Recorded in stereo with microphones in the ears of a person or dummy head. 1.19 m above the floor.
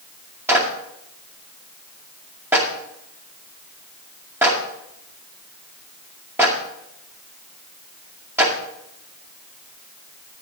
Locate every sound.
0.5 s a clap: 10° right (ahead or behind), 2.5 m